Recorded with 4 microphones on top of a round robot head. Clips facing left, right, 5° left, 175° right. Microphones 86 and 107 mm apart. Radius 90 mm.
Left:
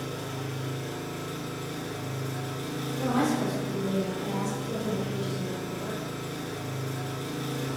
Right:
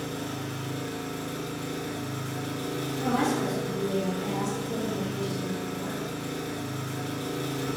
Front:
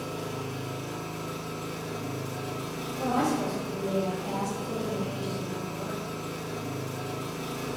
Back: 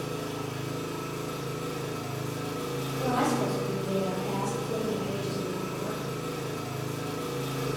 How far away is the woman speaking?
About 1.8 m.